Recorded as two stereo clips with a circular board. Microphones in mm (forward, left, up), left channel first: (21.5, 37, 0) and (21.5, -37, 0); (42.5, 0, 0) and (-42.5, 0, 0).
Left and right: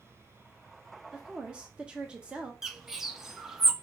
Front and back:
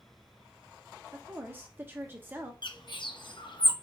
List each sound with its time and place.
1.1 s a woman speaking: 150° right, 0.9 m
2.6 s a bird: 5° right, 0.6 m